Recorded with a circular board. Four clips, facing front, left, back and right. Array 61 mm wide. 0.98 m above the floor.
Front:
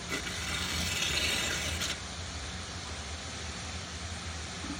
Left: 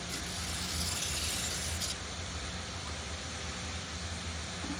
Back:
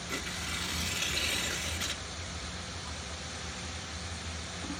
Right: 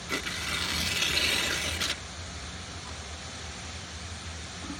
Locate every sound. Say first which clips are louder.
0.1 s tearing paper: right 8 dB, front 2 dB; 85° right, 0.5 m